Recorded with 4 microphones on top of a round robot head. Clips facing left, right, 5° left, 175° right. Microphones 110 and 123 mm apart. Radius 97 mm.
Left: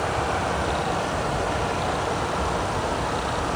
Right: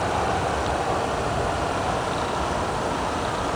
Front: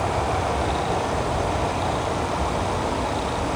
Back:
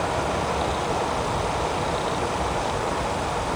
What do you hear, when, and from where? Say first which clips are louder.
0.0 s an aircraft: right 1 dB, front 1 dB; 40° right; by 3.6 s 10° right